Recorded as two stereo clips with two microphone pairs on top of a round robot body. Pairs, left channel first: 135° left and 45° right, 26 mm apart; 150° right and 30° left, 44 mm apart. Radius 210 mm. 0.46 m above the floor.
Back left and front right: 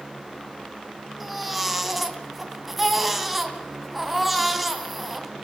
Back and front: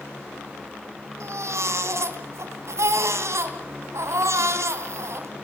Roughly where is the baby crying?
Ahead left.